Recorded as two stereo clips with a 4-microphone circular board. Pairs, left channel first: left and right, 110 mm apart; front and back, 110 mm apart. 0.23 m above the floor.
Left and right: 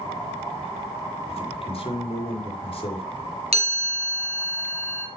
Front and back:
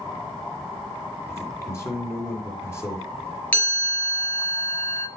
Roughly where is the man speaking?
Ahead left.